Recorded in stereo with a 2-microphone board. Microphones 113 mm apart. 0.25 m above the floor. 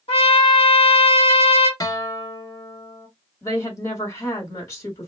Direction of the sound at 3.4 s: 35° left (ahead or behind).